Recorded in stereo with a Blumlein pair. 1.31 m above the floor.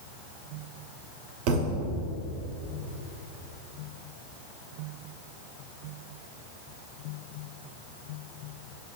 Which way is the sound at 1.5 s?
45° right.